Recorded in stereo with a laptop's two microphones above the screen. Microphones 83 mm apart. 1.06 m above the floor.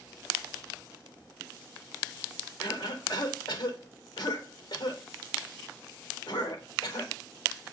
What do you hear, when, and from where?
2.6 s a cough: 60° left (ahead or behind), 3.5 m